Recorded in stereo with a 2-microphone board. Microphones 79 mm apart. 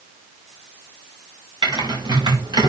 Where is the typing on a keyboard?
75° right (ahead or behind), 5 m.